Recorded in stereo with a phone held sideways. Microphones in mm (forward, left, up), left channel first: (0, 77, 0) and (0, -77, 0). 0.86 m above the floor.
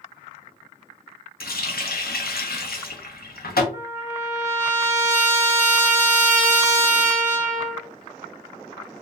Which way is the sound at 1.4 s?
80° left.